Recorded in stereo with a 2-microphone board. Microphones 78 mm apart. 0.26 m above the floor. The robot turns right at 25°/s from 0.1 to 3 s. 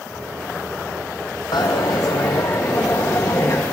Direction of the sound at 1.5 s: 100° left.